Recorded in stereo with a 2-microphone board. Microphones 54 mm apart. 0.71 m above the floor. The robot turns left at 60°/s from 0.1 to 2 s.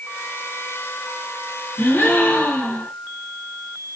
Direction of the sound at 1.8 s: 45° left (ahead or behind).